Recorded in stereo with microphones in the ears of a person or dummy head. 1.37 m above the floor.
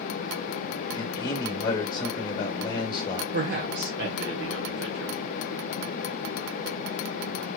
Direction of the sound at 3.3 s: 60° right (ahead or behind).